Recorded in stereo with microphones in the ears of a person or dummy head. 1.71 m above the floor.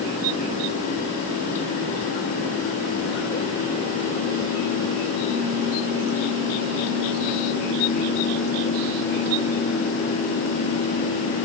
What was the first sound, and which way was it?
Only background noise.